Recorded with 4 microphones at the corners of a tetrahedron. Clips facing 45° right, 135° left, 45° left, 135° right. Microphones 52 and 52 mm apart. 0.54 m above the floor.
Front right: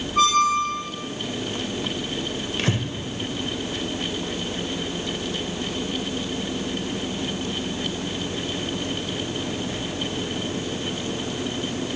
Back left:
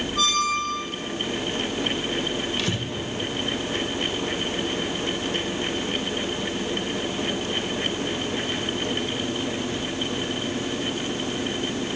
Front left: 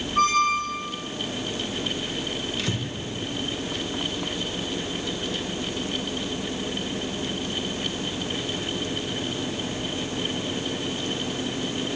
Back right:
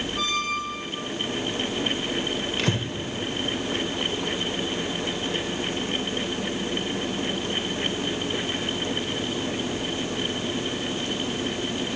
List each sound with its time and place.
0.2 s a squeak: 10° left, 0.9 m
2.6 s breathing: 95° right, 0.9 m